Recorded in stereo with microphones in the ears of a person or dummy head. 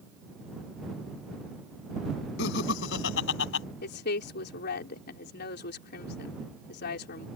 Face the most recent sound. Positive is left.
turn(degrees=55)  # may be behind; listen again after turning